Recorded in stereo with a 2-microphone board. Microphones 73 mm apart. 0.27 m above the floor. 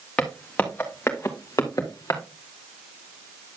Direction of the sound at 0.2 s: 15° left (ahead or behind).